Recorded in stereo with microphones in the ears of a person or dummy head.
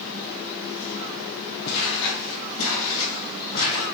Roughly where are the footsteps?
Left.